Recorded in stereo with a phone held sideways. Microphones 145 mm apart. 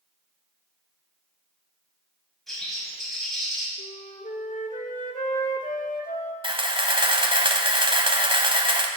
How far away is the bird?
About 6 m.